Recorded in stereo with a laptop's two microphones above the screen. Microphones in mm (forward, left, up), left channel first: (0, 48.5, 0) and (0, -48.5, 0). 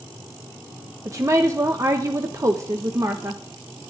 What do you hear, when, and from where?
1.1 s a woman speaking: 30° right (ahead or behind), 1.0 m